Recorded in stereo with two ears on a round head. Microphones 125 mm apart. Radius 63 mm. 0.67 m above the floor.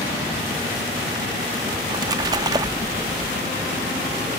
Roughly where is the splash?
Right.